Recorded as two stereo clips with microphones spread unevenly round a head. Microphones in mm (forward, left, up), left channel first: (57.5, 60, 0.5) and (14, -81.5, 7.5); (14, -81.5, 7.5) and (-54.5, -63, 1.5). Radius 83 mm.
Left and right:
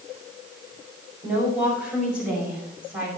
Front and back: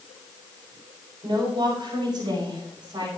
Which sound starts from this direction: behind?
A woman speaking, at 1.2 s.